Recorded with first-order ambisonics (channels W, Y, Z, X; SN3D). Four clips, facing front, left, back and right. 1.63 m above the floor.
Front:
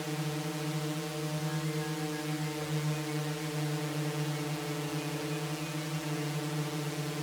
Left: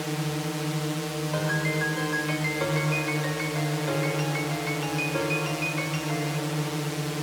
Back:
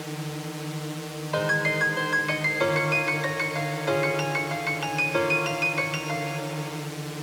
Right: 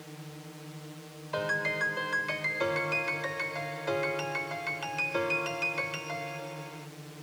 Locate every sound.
0.0 s a drone: 95° left
1.3 s a piano: straight behind